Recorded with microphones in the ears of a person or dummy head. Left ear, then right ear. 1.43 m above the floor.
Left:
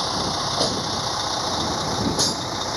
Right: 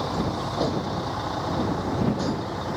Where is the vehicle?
70° left (ahead or behind); by 2.8 s 80° left.